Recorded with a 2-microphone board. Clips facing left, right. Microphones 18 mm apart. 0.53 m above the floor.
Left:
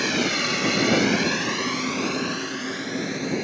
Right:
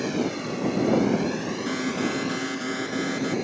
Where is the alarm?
40° right (ahead or behind).